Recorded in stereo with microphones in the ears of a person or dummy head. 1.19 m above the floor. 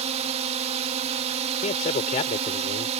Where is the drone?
35° right (ahead or behind).